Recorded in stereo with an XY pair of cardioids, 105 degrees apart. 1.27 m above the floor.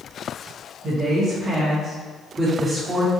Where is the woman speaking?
60° right, 1.5 m; by 3.1 s 10° right, 1.7 m.